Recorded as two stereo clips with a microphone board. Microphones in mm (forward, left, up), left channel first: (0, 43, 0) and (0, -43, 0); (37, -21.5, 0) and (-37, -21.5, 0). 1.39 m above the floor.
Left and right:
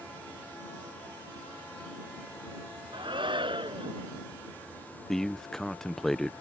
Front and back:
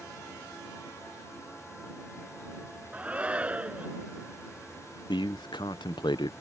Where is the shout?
105° right.